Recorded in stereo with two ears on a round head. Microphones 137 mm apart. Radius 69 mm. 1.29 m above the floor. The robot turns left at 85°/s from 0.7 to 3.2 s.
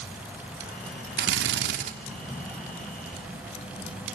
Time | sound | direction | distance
1.2 | a drill | 65° right | 3 m